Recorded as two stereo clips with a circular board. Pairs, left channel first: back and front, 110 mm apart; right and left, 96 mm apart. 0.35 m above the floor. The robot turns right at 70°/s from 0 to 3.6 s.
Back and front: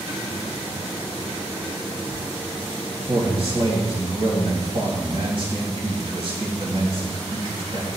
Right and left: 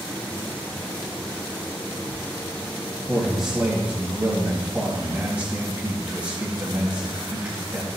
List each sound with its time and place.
3.1 s a man speaking: 20° right, 2.5 m; by 7.9 s 15° left, 2.5 m